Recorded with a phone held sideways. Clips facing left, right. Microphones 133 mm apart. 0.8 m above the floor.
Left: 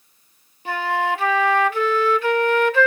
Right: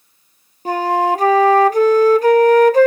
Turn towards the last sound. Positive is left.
turn(degrees=-40)  # may be behind; listen again after turning